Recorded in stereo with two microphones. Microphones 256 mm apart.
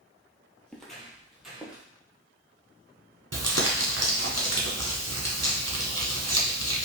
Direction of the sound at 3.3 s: 70° right (ahead or behind).